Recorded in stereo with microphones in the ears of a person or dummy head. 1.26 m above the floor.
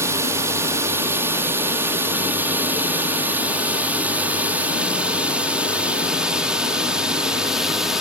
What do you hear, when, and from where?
0.0 s a drone: 15° right (ahead or behind); by 8.0 s centre (ahead or behind)